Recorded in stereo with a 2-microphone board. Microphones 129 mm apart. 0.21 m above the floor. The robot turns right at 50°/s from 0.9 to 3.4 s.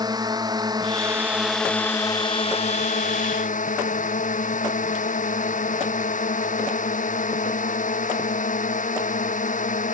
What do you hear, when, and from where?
0.0 s a drone: 30° right; by 9.9 s 95° left